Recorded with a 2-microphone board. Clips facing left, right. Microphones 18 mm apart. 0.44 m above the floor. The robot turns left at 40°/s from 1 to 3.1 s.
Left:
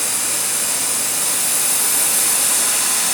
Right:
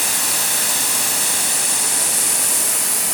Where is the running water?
130° right, 3 m; by 3.1 s 145° left, 3 m.